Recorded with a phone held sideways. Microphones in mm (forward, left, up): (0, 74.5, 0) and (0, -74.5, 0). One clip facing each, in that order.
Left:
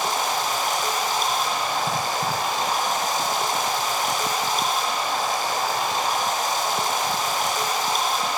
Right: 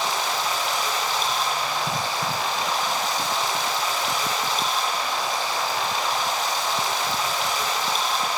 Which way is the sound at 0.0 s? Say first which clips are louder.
Left 1 dB; 50° left (ahead or behind).